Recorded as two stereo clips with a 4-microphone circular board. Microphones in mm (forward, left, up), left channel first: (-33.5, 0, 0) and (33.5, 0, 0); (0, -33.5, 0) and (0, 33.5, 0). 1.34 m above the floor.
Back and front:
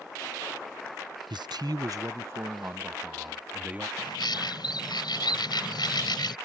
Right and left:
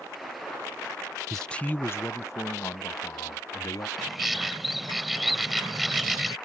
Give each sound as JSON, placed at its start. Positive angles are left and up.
{"t": 1.3, "sound": "a man speaking", "azimuth_deg": -5}
{"t": 4.0, "sound": "a bird", "azimuth_deg": 175}